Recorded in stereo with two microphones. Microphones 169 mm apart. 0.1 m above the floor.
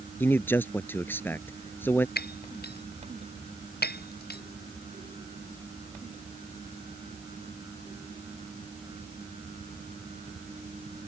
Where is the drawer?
No drawer in this recording.